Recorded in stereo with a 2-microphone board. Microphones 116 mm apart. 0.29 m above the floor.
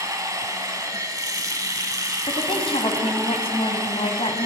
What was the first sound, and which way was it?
Running water, 30° right (ahead or behind).